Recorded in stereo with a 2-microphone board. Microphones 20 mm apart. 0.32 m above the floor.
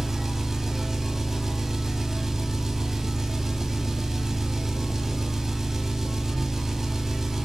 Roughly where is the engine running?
Centre.